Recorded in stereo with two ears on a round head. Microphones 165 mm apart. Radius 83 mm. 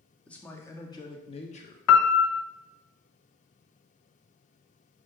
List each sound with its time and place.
0.3 s a man speaking: 5° left (ahead or behind), 1.2 m; by 1.8 s 45° left (ahead or behind), 1.2 m
1.9 s a piano: 85° left, 0.6 m